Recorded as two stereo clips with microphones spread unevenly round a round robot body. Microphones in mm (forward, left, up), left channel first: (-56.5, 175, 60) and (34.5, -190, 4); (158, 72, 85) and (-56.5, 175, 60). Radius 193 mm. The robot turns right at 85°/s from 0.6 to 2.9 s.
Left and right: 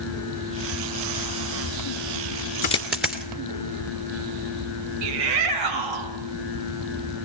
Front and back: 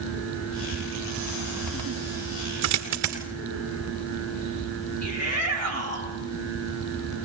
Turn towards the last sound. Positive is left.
turn(degrees=-95)